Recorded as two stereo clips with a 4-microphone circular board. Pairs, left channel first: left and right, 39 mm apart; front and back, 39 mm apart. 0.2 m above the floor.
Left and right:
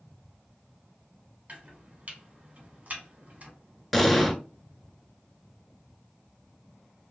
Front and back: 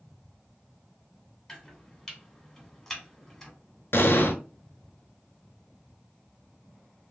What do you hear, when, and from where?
1.5 s chopping: 80° right, 1.0 m
3.9 s an explosion: straight ahead, 0.6 m